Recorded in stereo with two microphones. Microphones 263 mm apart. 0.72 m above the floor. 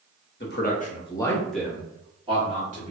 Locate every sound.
0.4 s a man speaking: 45° left (ahead or behind), 0.8 m; by 2.9 s 30° right (ahead or behind), 1.3 m